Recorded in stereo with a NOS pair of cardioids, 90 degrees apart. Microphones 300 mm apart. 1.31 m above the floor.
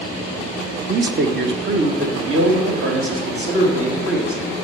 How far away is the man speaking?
About 0.6 m.